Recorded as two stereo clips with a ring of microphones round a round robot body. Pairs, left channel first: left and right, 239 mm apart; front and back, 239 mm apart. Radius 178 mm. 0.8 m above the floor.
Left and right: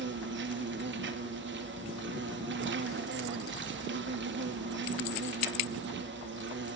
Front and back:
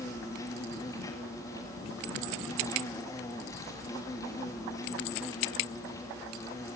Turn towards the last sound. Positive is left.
turn(degrees=-75)